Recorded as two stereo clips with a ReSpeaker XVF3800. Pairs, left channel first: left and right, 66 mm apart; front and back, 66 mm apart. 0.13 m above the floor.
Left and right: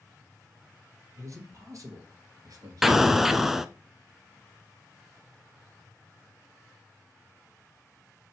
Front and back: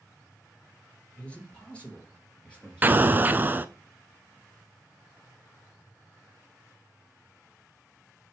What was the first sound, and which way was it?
A man speaking, 70° right.